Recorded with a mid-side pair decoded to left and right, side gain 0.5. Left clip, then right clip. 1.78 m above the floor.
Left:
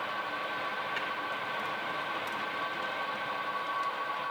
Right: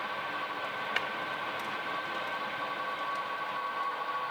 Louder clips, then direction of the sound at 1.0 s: Right 6 dB; 70° right.